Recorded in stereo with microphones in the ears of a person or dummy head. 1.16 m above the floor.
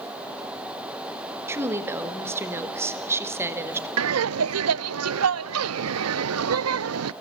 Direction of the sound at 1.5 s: 10° right (ahead or behind).